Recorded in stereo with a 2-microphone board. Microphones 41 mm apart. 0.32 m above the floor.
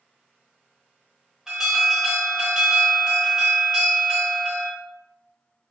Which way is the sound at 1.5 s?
15° right (ahead or behind).